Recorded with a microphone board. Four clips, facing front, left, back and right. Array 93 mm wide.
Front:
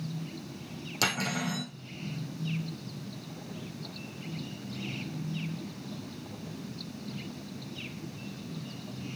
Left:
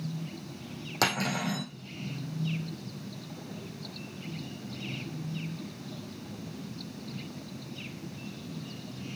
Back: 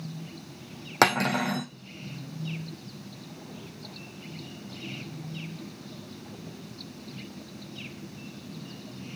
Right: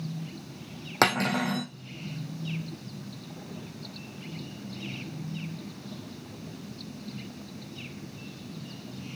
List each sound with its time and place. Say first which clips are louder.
1.0 s cutlery clinking: right 5 dB, back 9 dB; 150° right, 3 m